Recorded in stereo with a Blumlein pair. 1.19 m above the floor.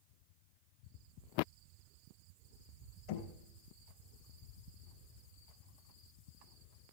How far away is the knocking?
About 3.5 m.